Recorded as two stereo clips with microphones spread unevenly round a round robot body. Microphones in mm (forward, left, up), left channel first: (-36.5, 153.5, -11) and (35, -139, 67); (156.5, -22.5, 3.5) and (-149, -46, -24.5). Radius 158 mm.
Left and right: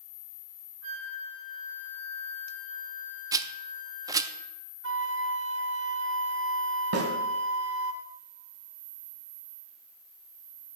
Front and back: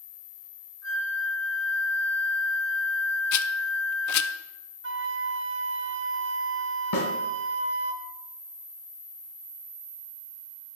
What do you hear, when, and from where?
0.8 s a flute: 40° right, 5.5 m
3.3 s a rattle: 15° left, 0.5 m
4.8 s a flute: 135° right, 1.0 m
6.9 s a snare drum: 30° right, 2.5 m